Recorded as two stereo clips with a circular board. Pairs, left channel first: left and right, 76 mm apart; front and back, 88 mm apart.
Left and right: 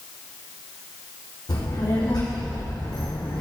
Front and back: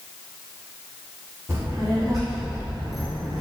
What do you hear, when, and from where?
1.5 s a child speaking: 105° left, 4 m; by 3.4 s 85° left, 3 m